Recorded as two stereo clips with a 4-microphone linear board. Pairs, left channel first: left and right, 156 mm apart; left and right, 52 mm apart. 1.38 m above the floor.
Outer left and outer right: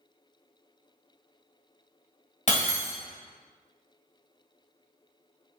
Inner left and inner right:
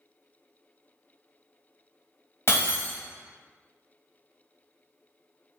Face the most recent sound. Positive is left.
turn(degrees=55)  # may be behind; listen again after turning